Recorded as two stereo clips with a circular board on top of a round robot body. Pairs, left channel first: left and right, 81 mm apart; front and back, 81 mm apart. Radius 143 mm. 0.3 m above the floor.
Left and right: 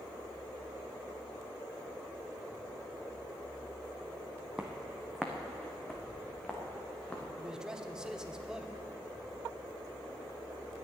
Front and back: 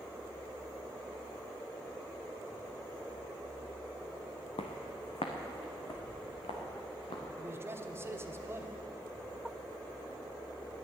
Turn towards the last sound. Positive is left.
turn(degrees=-165)